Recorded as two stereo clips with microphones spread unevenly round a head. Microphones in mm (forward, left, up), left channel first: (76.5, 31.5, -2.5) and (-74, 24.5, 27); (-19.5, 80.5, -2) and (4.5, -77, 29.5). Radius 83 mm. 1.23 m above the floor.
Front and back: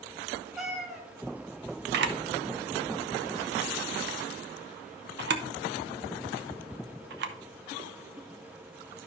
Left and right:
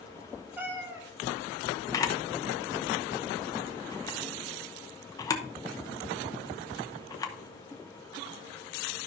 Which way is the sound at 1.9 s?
170° left.